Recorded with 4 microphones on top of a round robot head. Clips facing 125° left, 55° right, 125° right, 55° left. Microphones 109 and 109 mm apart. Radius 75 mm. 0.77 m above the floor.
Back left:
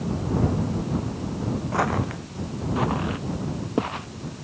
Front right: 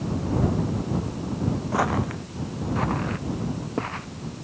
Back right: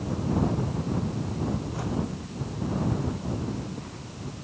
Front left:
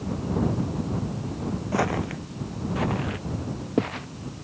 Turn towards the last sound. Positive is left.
turn(degrees=50)